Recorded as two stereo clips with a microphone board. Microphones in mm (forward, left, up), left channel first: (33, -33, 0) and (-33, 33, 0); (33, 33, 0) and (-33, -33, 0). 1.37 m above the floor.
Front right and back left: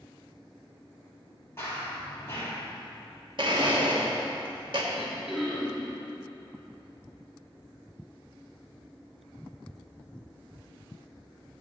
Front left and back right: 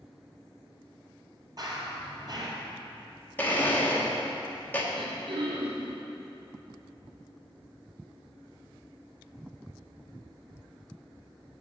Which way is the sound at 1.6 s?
105° right.